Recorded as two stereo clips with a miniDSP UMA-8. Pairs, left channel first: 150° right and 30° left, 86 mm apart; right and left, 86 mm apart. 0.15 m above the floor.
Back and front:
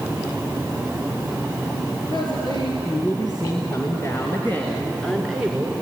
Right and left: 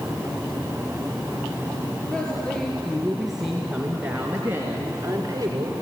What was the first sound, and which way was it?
A woman speaking, 165° right.